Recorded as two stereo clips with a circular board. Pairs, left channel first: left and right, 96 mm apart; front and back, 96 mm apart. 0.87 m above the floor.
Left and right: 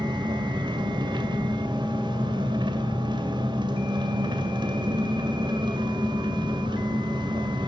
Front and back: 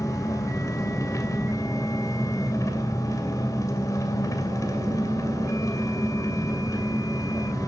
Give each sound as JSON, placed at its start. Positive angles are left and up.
{"t": 0.0, "sound": "an engine running", "azimuth_deg": -55, "distance_m": 2.0}